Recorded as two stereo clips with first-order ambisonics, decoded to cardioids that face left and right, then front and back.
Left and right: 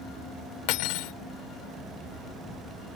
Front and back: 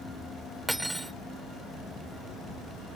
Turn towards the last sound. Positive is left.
turn(degrees=95)